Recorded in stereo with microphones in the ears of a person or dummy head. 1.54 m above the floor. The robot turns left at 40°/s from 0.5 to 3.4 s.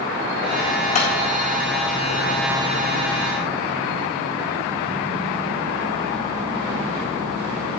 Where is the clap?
40° left (ahead or behind), 4 m; by 1.1 s 45° left (ahead or behind), 4 m.